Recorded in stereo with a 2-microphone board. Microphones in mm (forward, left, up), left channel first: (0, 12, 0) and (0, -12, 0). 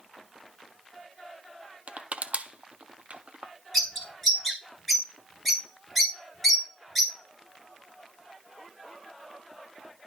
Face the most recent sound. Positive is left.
turn(degrees=0)  # may be behind; listen again after turning